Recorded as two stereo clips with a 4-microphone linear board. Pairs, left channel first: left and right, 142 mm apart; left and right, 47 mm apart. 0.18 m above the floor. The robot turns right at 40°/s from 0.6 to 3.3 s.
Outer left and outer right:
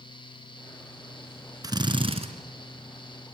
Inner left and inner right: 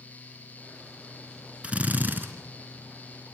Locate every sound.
1.6 s a drill: 25° right (ahead or behind), 3 m; by 2.3 s 45° right (ahead or behind), 3 m